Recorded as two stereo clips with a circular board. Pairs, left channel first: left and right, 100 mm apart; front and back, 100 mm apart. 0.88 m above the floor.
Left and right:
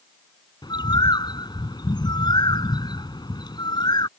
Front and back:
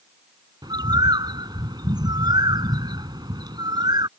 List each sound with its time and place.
0.6 s a bird: 135° left